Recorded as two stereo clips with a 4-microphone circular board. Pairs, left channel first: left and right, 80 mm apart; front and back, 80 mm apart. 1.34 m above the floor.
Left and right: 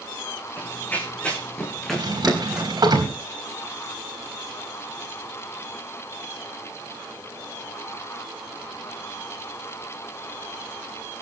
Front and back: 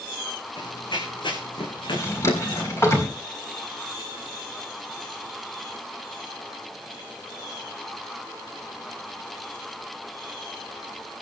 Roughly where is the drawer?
Ahead right.